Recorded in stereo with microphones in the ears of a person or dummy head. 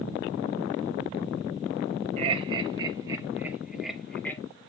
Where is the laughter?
40° right (ahead or behind), 1.7 m; by 4.4 s 5° left (ahead or behind), 1.7 m.